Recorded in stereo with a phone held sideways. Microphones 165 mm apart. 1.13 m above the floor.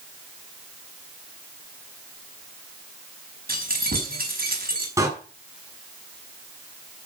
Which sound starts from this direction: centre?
A door slam, at 5.0 s.